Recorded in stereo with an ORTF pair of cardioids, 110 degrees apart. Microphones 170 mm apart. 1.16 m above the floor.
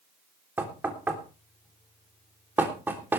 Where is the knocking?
10° right, 3.5 m.